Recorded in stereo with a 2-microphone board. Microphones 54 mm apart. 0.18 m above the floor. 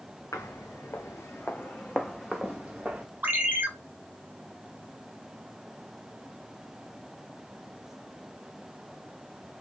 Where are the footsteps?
75° left (ahead or behind), 1.3 m; by 3.0 s 25° right (ahead or behind), 1.2 m.